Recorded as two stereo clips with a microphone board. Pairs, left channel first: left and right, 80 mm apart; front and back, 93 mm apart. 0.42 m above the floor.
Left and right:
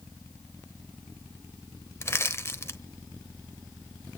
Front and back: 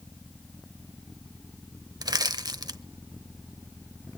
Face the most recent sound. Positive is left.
turn(degrees=145)